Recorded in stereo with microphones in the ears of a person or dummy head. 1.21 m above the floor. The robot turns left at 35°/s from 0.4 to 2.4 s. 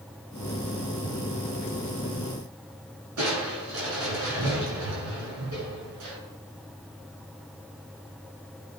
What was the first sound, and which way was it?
Crushing, 80° right.